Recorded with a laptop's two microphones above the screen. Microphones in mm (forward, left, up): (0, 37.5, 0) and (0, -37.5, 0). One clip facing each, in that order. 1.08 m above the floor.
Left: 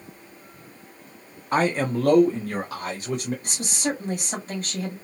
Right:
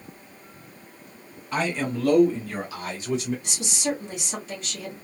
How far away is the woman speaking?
About 1.6 m.